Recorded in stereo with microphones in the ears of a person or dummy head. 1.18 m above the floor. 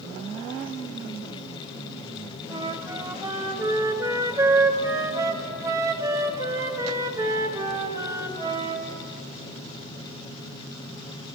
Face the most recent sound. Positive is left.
turn(degrees=-15)  # may be behind; listen again after turning